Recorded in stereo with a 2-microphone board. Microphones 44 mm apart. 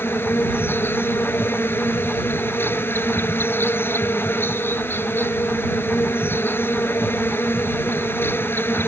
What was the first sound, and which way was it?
An insect, 60° left (ahead or behind).